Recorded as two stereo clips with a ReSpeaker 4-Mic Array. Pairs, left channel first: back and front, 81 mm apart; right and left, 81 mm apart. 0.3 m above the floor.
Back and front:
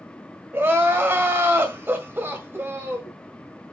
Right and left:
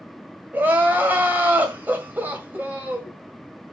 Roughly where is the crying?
Ahead left.